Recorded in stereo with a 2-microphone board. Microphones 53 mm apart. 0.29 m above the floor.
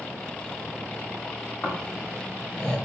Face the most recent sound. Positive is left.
turn(degrees=25)  # may be behind; listen again after turning